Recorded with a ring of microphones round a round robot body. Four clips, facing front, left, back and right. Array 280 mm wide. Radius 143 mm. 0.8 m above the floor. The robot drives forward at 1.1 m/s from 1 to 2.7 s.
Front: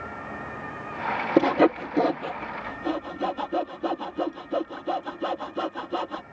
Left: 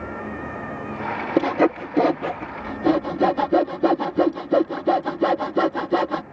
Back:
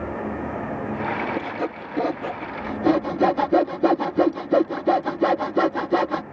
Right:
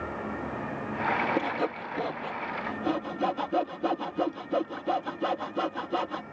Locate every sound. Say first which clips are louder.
1.4 s sawing: left 10 dB, front 8 dB; 40° left; by 6.2 s 135° left